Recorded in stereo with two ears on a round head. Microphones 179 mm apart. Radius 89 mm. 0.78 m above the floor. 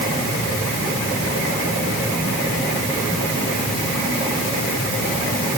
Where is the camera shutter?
I don't hear a camera shutter.